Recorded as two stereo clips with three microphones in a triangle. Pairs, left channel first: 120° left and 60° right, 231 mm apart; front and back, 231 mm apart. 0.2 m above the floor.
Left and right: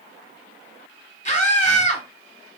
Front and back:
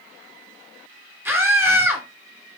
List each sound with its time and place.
1.2 s a scream: 110° left, 1.3 m